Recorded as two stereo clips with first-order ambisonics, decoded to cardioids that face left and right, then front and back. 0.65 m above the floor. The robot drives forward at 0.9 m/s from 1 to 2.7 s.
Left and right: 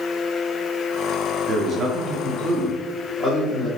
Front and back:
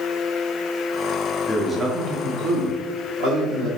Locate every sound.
1.5 s a man speaking: 65° right, 0.7 m; by 3.7 s 165° right, 1.2 m